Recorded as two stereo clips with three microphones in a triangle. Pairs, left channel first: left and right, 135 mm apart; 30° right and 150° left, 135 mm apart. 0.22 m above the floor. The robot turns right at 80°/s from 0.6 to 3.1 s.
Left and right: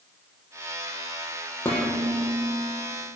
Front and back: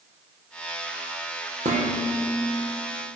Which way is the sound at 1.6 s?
165° left.